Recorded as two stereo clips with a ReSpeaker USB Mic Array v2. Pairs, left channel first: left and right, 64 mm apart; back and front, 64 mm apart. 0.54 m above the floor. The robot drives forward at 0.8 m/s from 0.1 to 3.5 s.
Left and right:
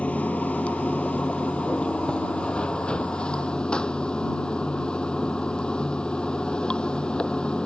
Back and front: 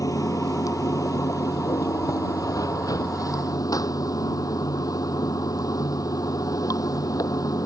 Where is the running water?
160° left; by 7.7 s 165° left.